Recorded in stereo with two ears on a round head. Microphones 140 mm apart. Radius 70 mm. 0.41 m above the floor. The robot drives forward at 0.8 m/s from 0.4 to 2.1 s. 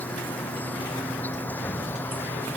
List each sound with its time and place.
0.0 s an insect: 10° left (ahead or behind); by 2.6 s 15° left (ahead or behind)